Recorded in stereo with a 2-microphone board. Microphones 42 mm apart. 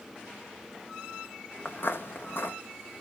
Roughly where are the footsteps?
Left.